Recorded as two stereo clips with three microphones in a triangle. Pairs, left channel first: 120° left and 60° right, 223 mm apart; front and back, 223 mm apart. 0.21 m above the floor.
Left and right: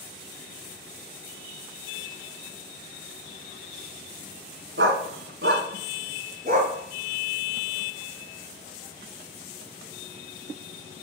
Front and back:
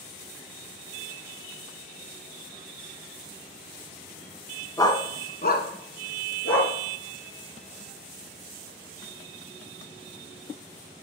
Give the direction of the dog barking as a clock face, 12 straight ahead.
2 o'clock.